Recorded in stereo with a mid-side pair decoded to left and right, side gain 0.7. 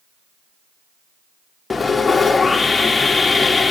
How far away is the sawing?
About 1.1 m.